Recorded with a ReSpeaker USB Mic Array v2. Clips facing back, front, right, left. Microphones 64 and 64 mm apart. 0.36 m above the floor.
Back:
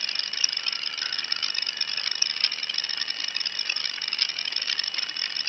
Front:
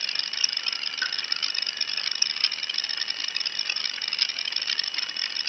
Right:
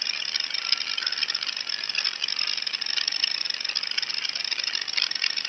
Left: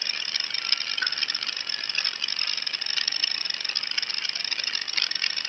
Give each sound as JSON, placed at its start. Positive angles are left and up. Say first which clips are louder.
{"t": 1.0, "sound": "a pop", "louder": "front 8 dB, left 5 dB", "azimuth_deg": 45, "distance_m": 1.1}